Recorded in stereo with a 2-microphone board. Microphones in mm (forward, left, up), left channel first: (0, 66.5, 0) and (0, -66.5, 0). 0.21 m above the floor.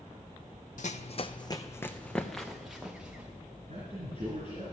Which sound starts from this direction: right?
A man speaking, at 3.7 s.